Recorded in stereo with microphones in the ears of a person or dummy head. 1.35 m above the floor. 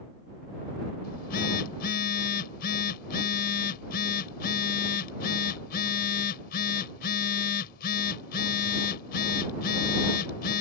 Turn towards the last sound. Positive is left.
turn(degrees=50)  # may be behind; listen again after turning